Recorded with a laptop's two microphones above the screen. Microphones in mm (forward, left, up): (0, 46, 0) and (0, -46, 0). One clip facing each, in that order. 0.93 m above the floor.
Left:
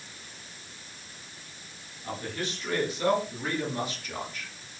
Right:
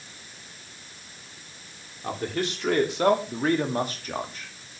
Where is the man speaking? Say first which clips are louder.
Right 6 dB; 75° right (ahead or behind), 2.5 m; by 4.5 s 30° right (ahead or behind), 1.7 m.